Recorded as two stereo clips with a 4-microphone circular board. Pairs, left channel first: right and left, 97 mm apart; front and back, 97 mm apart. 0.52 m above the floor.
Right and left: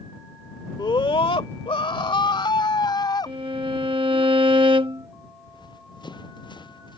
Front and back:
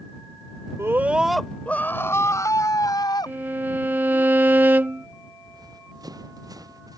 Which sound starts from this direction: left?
A violin, at 3.3 s.